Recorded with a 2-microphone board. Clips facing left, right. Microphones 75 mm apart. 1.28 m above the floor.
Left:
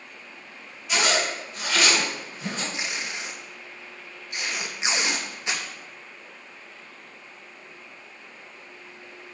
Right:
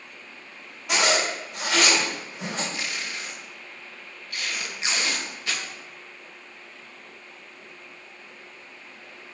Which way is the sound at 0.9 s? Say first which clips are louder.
Right 1 dB; 80° right.